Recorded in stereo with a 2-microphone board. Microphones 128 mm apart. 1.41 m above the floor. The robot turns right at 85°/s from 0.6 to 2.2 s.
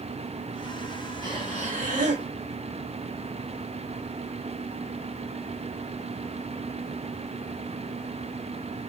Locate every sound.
1.2 s breathing: 150° right, 1.3 m; by 2.3 s 65° right, 1.3 m